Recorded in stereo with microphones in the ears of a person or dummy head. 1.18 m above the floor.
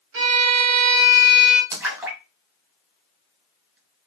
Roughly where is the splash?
Centre.